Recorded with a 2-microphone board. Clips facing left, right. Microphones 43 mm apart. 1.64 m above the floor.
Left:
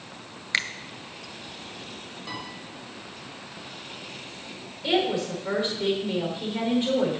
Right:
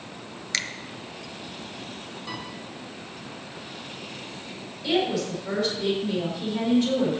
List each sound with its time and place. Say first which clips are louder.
0.5 s a finger snap: left 4 dB; 20° left (ahead or behind), 0.7 m
2.3 s a piano: even; centre (ahead or behind), 4 m
4.8 s a woman speaking: even; 20° left (ahead or behind), 5 m